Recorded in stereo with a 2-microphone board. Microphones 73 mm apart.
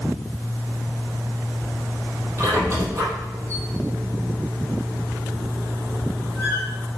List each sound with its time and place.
2.4 s a squeak: 45° right (ahead or behind), 5 m